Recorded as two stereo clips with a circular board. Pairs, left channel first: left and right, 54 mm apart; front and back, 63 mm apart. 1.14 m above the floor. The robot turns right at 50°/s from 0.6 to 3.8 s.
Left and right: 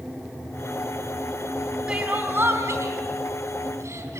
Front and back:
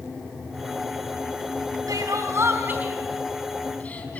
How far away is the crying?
About 3.5 m.